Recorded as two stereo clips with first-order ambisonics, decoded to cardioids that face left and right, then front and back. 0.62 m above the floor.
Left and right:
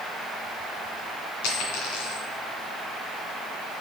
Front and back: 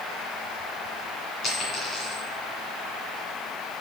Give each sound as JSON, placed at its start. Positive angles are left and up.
{"t": 1.4, "sound": "a dropped coin", "azimuth_deg": 70, "distance_m": 2.5}